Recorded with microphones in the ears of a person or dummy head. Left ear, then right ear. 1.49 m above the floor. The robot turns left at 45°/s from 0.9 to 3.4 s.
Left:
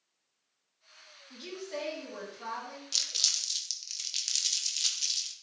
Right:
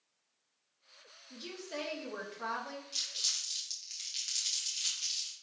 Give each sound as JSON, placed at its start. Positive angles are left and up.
{"t": 1.3, "sound": "a woman speaking", "azimuth_deg": 15, "distance_m": 0.8}
{"t": 2.9, "sound": "crumpling", "side_deg": 40, "distance_m": 0.6}